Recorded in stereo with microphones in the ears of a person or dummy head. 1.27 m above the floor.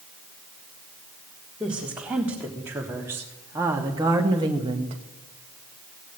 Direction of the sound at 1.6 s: 5° right (ahead or behind).